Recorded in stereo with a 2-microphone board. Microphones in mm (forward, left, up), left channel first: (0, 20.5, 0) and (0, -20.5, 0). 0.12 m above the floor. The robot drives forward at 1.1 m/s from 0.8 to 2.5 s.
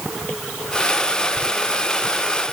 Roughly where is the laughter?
I don't hear laughter.